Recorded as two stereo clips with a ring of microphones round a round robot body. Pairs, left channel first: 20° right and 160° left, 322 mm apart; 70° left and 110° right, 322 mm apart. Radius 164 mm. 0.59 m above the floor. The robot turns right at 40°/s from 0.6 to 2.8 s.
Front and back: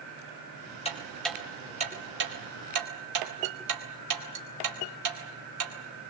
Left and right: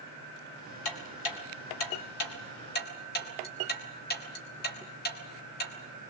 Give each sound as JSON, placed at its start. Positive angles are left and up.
{"t": 0.8, "sound": "ticking", "azimuth_deg": 50, "distance_m": 4.0}